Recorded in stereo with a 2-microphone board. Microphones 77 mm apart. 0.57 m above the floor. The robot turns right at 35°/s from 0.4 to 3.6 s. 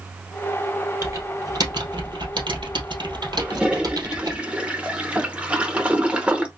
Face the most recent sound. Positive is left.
turn(degrees=-15)  # may be behind; listen again after turning